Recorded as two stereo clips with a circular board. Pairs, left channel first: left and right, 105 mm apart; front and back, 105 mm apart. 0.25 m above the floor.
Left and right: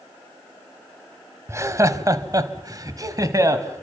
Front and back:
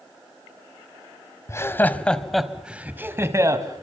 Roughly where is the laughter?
Ahead right.